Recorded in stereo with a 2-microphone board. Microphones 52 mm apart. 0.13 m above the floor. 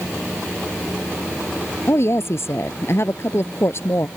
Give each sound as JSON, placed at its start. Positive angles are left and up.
{"t": 1.9, "sound": "a woman speaking", "side_deg": 55}